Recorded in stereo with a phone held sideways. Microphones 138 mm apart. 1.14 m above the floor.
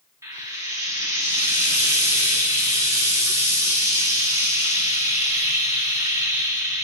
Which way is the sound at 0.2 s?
25° right (ahead or behind).